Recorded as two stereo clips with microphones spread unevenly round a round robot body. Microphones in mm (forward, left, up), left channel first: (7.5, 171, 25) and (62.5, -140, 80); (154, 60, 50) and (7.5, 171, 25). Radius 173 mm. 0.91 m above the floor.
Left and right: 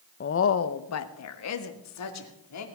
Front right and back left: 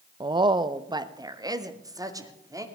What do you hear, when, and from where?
0.2 s a woman speaking: 100° left, 0.7 m; by 2.6 s 75° left, 2.5 m